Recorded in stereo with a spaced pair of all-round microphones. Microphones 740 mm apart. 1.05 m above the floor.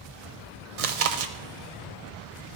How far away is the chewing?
About 0.6 m.